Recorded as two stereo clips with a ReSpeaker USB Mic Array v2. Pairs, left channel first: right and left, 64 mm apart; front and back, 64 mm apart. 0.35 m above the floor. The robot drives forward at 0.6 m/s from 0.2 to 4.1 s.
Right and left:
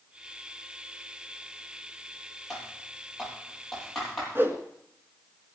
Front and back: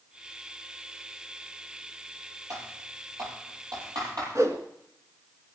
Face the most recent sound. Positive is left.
turn(degrees=145)